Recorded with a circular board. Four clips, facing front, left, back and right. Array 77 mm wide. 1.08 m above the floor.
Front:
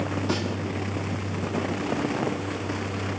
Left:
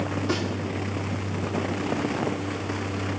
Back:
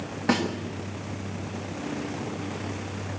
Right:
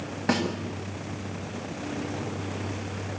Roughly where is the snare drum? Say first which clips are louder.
Right 4 dB, back 7 dB; behind right.